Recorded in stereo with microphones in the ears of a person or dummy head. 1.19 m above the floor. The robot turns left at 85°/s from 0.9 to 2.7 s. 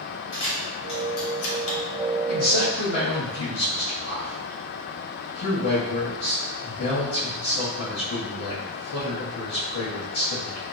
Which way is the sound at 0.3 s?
30° left (ahead or behind).